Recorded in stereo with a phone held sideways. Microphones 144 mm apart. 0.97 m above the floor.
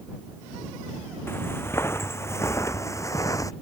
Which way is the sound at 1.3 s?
15° left (ahead or behind).